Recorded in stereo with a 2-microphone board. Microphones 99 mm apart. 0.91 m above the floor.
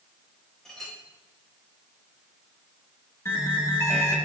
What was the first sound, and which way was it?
A clink, 5° left (ahead or behind).